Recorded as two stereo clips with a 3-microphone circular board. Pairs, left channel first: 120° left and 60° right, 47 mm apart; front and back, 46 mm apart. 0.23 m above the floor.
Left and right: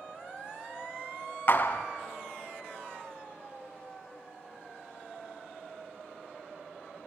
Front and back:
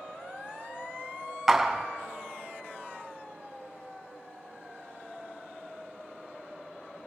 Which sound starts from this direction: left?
A clap, at 1.5 s.